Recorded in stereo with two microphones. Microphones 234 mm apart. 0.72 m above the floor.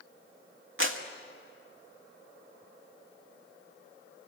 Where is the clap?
60° right (ahead or behind), 1.6 m.